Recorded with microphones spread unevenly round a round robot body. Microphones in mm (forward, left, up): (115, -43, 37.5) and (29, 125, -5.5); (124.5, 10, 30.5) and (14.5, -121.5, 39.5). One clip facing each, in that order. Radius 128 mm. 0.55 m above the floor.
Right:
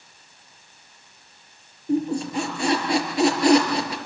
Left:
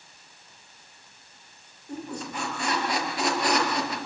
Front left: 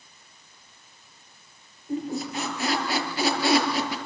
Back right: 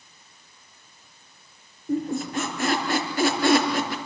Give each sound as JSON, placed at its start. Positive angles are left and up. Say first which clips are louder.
{"t": 1.9, "sound": "a squeak", "louder": "right 12 dB, back right 3 dB", "azimuth_deg": -90, "distance_m": 5.0}